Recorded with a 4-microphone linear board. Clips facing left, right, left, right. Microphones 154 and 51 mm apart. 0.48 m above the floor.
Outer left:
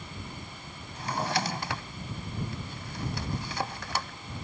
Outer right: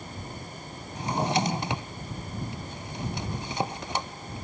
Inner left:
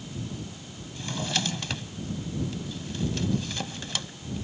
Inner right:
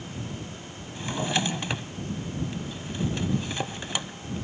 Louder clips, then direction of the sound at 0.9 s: Outer right 4 dB, inner right 3 dB; 20° right (ahead or behind).